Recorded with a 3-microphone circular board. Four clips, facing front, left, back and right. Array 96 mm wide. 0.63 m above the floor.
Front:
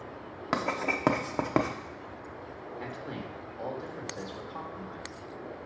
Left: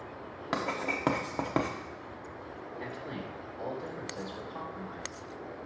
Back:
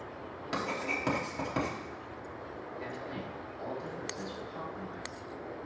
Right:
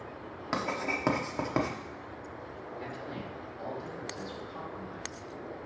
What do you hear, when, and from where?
0.5 s writing: 10° left, 0.9 m
2.8 s a man speaking: 25° left, 2 m